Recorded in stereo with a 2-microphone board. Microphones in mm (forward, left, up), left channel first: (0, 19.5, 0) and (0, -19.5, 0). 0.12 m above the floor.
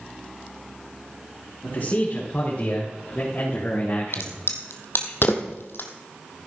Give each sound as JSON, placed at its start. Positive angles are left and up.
{"t": 1.6, "sound": "a man speaking", "side_deg": 50, "distance_m": 6.0}
{"t": 4.1, "sound": "a crack", "side_deg": 70, "distance_m": 1.6}